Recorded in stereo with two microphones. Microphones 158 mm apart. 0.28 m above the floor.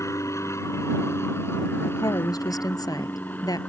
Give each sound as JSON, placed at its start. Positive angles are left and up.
{"t": 0.0, "sound": "an aircraft", "side_deg": 20}
{"t": 1.8, "sound": "a woman speaking", "side_deg": 25}